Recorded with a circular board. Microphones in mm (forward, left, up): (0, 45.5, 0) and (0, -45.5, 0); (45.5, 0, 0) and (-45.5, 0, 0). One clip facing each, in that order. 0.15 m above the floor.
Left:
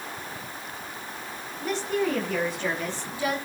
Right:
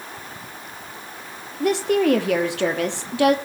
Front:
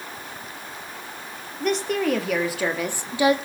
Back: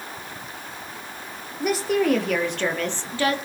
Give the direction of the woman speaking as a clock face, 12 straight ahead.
3 o'clock.